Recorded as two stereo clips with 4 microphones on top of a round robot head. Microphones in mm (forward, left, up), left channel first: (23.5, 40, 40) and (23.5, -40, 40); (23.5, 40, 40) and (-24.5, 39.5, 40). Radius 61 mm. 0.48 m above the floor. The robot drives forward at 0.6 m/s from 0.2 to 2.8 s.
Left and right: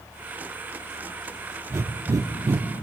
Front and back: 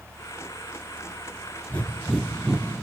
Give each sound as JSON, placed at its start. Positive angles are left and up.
{"t": 1.7, "sound": "breathing", "azimuth_deg": -50, "distance_m": 0.7}